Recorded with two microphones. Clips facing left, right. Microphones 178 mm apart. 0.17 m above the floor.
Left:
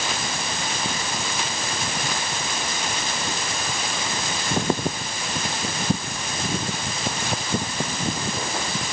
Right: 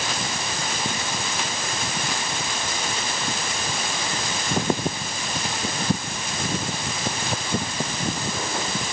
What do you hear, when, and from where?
Only background noise.